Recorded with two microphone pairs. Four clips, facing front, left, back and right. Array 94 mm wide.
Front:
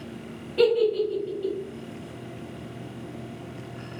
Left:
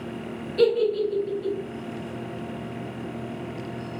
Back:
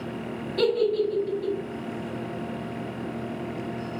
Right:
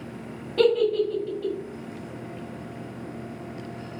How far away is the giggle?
About 1.9 m.